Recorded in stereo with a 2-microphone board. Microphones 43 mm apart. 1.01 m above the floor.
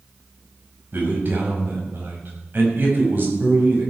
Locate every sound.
0.9 s a man speaking: 45° right (ahead or behind), 5 m